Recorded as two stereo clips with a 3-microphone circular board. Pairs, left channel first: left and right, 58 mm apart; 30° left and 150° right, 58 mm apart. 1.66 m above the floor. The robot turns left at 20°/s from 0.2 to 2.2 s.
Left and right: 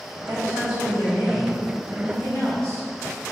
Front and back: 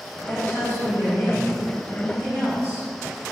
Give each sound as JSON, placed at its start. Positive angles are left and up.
{"t": 0.3, "sound": "a woman speaking", "azimuth_deg": 105, "distance_m": 1.8}